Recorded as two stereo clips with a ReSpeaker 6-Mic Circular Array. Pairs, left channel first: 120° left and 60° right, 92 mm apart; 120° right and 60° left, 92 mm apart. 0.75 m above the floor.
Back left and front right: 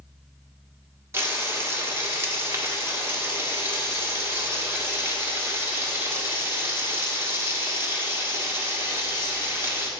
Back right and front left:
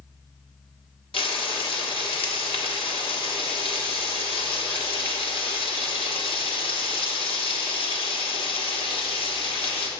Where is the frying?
120° right, 1.4 m.